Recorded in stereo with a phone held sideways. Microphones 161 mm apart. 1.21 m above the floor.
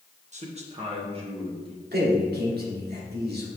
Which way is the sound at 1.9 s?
85° right.